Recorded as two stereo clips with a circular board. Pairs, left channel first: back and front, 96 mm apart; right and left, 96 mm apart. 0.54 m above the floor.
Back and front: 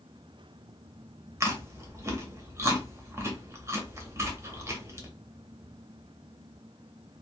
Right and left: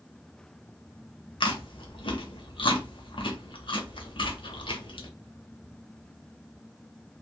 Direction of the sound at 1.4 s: 60° right.